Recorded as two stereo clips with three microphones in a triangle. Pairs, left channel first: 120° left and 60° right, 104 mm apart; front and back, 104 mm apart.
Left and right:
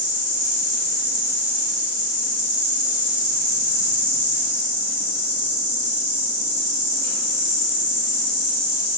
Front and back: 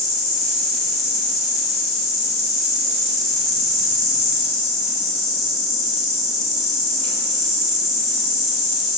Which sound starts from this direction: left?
An insect, at 0.0 s.